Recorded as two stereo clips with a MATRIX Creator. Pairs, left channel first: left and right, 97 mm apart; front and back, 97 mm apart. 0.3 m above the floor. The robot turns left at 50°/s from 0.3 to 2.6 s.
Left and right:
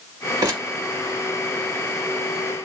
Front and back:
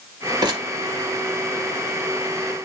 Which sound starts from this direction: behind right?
Crumpling, at 0.4 s.